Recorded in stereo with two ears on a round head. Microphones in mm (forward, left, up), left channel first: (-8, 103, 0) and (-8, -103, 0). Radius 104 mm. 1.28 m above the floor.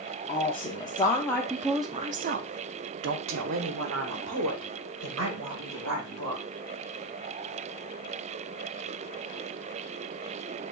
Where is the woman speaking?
30° left (ahead or behind), 1.1 m; by 6.4 s 55° right (ahead or behind), 2.5 m.